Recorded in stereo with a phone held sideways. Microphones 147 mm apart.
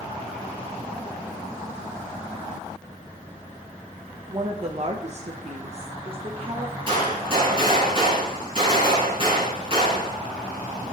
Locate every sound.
4.3 s a woman speaking: 35° right (ahead or behind), 1.1 m
6.9 s a gunshot: 35° right (ahead or behind), 5.5 m